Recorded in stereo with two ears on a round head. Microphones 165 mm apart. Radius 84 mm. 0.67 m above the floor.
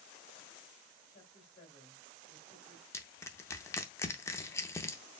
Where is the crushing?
15° left (ahead or behind), 0.5 m.